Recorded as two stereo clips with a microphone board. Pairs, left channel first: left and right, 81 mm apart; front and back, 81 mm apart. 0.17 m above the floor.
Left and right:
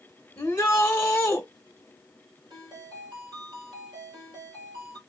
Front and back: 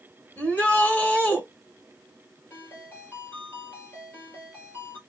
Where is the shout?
45° left, 1.5 m.